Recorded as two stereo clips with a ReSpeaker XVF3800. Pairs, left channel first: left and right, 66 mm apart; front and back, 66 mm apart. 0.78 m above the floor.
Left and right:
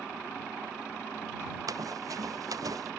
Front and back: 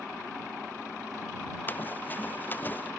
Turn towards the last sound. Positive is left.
turn(degrees=-60)